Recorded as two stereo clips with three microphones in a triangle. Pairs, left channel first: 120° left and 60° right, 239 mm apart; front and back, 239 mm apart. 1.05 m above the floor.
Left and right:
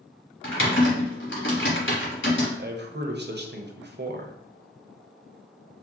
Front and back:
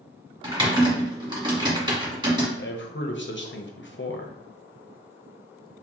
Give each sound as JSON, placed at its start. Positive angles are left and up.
{"t": 0.4, "sound": "typing on a keyboard", "azimuth_deg": 115, "distance_m": 1.5}
{"t": 2.6, "sound": "a man speaking", "azimuth_deg": -25, "distance_m": 0.7}